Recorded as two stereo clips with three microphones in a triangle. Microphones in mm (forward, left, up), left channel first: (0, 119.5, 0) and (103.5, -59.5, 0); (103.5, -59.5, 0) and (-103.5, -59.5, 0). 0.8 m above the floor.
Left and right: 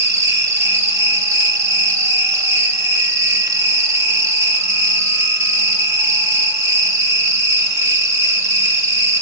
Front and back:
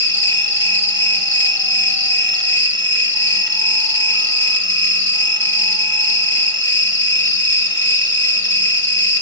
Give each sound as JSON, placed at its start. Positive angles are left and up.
{"t": 0.0, "sound": "an insect", "azimuth_deg": 15, "distance_m": 1.1}